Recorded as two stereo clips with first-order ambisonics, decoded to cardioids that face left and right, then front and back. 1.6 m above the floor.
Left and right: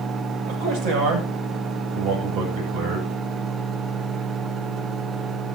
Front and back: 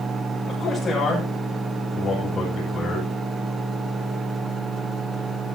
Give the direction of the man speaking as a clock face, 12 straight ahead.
3 o'clock.